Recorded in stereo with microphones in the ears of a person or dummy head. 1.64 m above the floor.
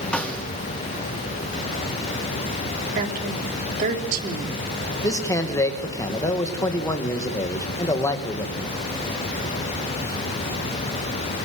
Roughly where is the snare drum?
Centre.